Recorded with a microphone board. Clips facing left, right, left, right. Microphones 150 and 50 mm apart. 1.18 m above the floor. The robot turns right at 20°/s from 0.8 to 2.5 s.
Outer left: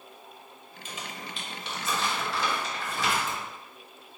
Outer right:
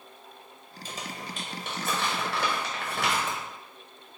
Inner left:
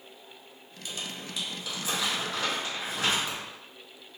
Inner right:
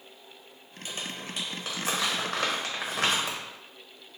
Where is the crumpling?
35° right (ahead or behind), 0.8 m; by 3.4 s 65° right (ahead or behind), 0.8 m.